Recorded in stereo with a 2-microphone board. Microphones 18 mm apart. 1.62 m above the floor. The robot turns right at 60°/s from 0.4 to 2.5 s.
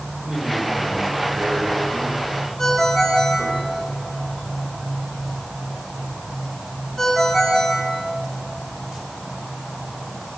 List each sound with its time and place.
0.2 s a man speaking: 145° right, 7 m; by 3.6 s 20° right, 7 m
2.6 s a ringtone: 30° left (ahead or behind), 8 m